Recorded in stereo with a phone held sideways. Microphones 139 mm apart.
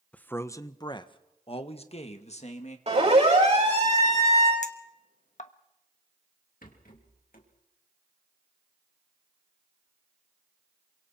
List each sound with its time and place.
0.1 s a man speaking: 10° left (ahead or behind), 1.0 m; by 2.8 s 55° left (ahead or behind), 2.5 m
2.9 s a siren: 50° right (ahead or behind), 9.5 m; by 4.5 s 55° right (ahead or behind), 9.5 m
4.6 s a clink: 55° left (ahead or behind), 1.3 m
6.6 s a rattle: 80° left, 3.5 m